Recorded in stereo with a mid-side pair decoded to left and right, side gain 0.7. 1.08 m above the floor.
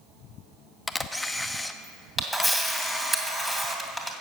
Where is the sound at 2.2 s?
5° right, 2.5 m.